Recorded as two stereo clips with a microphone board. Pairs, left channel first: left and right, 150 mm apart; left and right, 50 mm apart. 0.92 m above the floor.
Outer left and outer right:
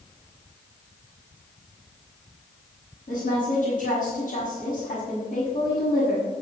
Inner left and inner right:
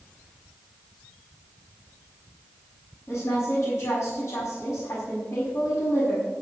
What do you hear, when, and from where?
3.1 s a woman speaking: 80° left, 6 m